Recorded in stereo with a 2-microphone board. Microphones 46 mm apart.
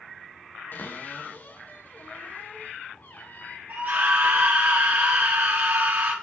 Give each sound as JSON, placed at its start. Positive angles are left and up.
{"t": 0.7, "sound": "a cupboard door", "side_deg": 45, "distance_m": 1.3}
{"t": 3.7, "sound": "a scream", "side_deg": -50, "distance_m": 2.0}